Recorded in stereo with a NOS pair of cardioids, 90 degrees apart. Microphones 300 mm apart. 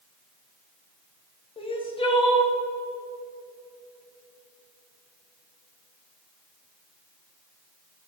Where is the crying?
15° left, 1.3 m.